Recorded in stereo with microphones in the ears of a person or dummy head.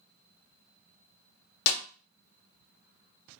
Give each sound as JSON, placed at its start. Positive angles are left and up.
{"t": 1.7, "sound": "a snare drum", "side_deg": 70, "distance_m": 0.6}